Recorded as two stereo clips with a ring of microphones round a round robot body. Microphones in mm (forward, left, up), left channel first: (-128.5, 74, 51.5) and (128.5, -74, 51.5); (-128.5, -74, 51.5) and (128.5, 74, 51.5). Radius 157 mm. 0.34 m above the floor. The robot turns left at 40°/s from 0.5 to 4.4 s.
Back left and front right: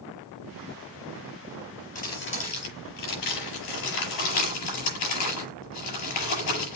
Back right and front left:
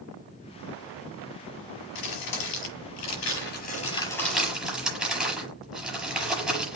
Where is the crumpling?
145° right, 6.5 m; by 6.8 s 120° left, 6.5 m.